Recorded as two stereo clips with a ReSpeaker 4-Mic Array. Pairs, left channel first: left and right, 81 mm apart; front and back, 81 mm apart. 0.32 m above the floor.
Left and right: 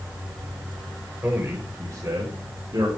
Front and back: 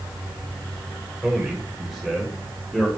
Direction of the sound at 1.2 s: 120° right.